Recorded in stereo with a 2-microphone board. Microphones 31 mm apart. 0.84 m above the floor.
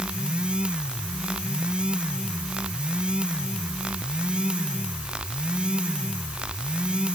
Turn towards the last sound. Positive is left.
No sound to turn to.